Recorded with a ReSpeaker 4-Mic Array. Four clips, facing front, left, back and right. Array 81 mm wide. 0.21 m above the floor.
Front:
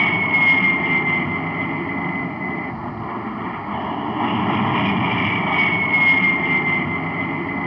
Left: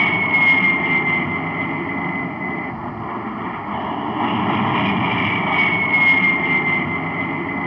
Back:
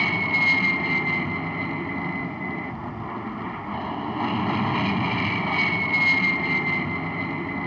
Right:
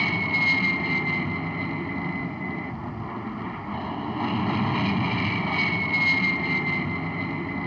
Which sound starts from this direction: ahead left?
An aircraft, at 0.0 s.